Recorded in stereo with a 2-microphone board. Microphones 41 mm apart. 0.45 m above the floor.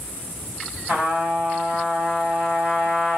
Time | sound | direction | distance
0.9 | a trumpet | 25° right (ahead or behind) | 2.5 m